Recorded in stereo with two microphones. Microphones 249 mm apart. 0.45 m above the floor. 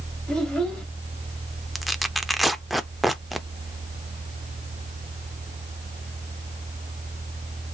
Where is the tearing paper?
Centre (ahead or behind), 0.5 m.